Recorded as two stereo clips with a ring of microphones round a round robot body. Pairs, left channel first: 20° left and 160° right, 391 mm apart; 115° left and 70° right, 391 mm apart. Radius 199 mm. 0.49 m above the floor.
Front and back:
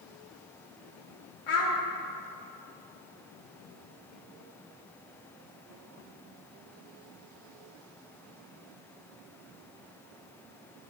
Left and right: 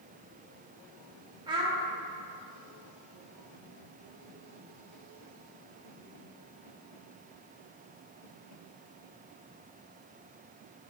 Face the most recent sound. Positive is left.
turn(degrees=10)